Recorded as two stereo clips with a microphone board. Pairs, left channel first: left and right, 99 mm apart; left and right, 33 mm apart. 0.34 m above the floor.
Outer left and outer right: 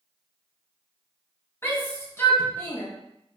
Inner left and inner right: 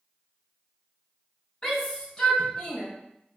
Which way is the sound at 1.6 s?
25° left (ahead or behind).